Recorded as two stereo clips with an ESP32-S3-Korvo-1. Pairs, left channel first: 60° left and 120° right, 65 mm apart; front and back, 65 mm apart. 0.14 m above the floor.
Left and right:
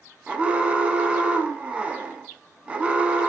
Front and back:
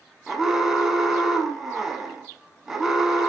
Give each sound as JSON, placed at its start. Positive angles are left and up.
{"t": 0.3, "sound": "an alarm", "azimuth_deg": -110, "distance_m": 1.2}